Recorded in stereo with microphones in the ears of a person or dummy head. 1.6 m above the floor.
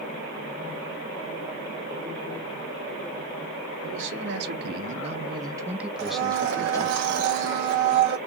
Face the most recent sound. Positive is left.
turn(degrees=-55)  # may be behind; listen again after turning